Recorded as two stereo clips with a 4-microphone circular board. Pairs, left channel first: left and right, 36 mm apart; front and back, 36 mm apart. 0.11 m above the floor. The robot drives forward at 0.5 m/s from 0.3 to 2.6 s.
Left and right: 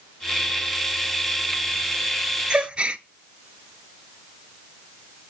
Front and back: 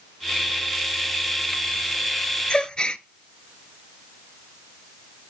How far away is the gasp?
About 0.6 m.